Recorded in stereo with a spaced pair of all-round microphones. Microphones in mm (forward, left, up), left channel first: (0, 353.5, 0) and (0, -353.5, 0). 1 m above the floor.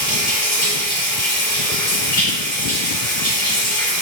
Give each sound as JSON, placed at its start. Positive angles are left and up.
{"t": 0.0, "sound": "running water", "side_deg": 30, "distance_m": 2.5}